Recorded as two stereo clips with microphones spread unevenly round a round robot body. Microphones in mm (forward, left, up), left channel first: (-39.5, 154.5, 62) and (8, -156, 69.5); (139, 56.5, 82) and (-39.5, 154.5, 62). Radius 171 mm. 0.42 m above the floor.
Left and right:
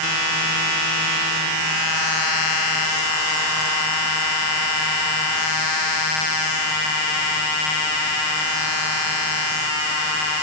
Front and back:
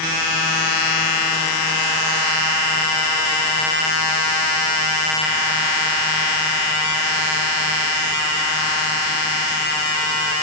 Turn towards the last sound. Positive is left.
No sound to turn to.